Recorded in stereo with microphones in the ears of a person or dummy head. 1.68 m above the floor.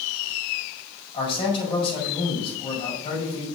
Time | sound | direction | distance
1.1 | a man speaking | 30° left (ahead or behind) | 5 m